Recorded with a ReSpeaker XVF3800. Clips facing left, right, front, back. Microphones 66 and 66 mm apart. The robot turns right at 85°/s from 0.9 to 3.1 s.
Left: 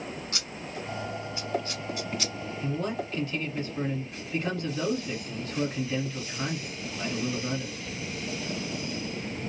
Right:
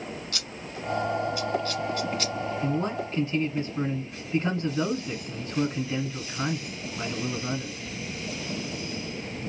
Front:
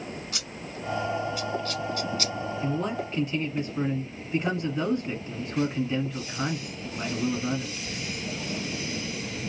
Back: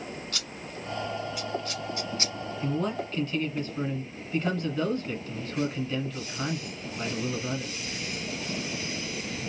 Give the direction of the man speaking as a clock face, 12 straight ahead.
3 o'clock.